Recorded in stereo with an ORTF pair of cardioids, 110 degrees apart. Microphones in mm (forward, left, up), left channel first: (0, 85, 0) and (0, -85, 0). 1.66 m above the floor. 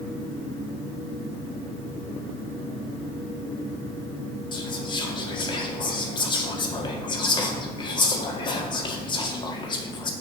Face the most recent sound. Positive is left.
turn(degrees=30)